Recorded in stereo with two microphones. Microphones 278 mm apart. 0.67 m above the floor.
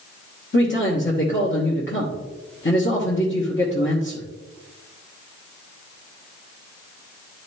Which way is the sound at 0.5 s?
45° left (ahead or behind).